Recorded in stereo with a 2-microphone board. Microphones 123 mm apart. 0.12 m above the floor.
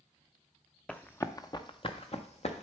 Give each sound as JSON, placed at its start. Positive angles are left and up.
{"t": 0.9, "sound": "running footsteps", "side_deg": 10, "distance_m": 0.7}